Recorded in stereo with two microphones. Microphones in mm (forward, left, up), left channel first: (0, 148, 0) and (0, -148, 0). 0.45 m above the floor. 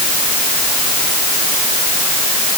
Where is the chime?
No chime in this recording.